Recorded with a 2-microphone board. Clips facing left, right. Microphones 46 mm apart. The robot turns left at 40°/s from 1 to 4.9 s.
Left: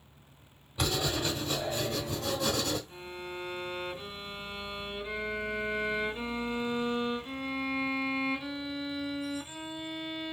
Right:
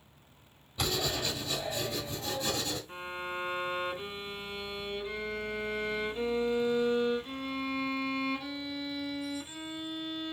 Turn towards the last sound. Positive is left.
turn(degrees=165)